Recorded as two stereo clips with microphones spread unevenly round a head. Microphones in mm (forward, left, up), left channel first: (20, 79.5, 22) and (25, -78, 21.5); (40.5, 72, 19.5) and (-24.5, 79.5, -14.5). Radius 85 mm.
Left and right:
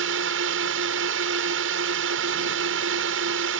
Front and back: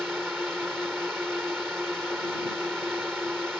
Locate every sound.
0.0 s a drone: 100° right